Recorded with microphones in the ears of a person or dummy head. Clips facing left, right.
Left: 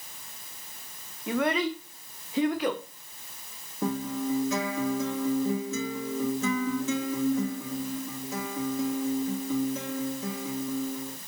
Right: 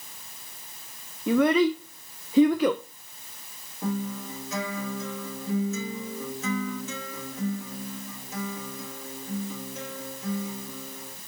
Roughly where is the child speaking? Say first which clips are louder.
Right 6 dB; right.